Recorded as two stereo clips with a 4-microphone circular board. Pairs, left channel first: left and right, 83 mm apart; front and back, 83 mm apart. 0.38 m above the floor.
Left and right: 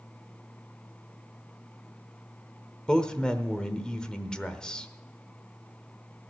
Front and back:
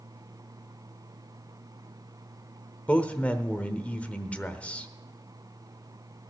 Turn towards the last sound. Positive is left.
turn(degrees=30)